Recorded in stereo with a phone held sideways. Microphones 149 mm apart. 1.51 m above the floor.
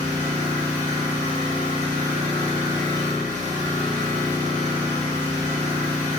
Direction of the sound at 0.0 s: 50° left (ahead or behind).